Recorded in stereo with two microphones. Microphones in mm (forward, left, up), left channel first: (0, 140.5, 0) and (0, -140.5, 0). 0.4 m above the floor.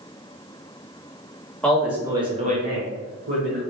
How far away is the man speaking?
About 1.1 m.